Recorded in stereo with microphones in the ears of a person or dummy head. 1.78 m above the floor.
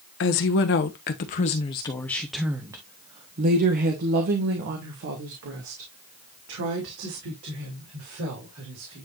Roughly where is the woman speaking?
Left.